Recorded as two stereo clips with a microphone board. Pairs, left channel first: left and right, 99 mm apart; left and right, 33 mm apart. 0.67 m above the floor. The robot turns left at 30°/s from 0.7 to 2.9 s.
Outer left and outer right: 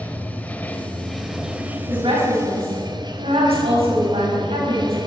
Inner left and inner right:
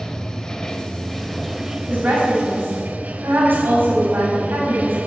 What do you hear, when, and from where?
0.0 s running water: 15° left, 1.0 m; by 5.1 s 50° right, 1.0 m
1.9 s a woman speaking: 60° right, 4.5 m; by 5.0 s 90° right, 4.5 m